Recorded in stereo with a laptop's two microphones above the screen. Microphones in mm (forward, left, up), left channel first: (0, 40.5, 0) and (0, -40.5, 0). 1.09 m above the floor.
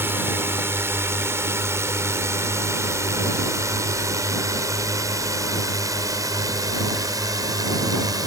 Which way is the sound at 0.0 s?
30° right (ahead or behind).